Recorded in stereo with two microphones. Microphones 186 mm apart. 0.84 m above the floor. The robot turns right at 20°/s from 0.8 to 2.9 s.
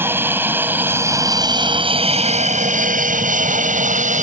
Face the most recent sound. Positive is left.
turn(degrees=-45)  # may be behind; listen again after turning